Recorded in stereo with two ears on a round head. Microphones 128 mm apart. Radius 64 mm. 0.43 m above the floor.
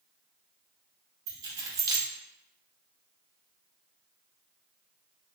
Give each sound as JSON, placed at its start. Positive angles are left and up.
{"t": 1.3, "sound": "keys jangling", "side_deg": -25, "distance_m": 0.5}